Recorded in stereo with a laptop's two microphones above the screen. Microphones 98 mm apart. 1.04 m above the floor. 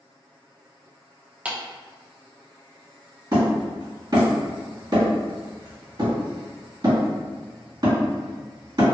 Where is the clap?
15° right (ahead or behind), 0.6 m.